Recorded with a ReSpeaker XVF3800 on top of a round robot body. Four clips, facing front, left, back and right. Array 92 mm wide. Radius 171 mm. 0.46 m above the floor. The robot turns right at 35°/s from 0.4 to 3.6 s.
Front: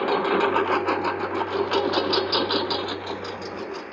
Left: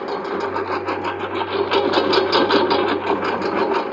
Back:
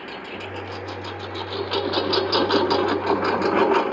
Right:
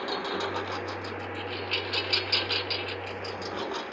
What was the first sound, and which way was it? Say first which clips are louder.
A lawn mower: left 8 dB, front 13 dB; 25° left.